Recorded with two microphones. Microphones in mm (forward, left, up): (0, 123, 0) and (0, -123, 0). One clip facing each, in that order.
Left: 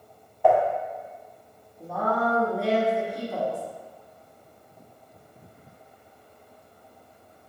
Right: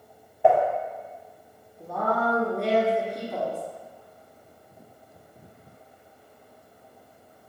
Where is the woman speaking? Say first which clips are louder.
Even; 5° left (ahead or behind), 1.4 m.